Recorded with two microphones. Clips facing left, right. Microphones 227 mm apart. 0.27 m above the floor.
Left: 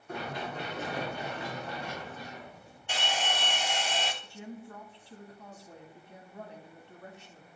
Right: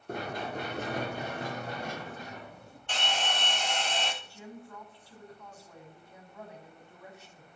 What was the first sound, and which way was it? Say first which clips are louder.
Running footsteps: right 2 dB; 45° right (ahead or behind).